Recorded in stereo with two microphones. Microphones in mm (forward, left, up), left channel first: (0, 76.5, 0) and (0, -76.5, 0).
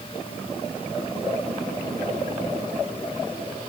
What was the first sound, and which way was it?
Only background noise.